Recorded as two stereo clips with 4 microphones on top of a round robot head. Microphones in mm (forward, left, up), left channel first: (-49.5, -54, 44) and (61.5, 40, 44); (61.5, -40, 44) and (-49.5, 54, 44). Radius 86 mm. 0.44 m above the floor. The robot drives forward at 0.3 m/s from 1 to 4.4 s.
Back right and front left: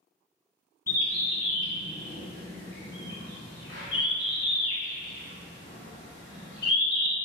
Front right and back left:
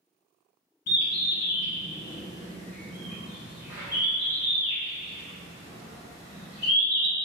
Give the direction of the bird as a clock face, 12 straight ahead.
2 o'clock.